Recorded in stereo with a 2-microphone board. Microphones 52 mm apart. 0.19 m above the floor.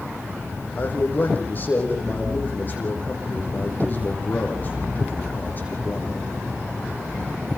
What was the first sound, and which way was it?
A man speaking, 35° left (ahead or behind).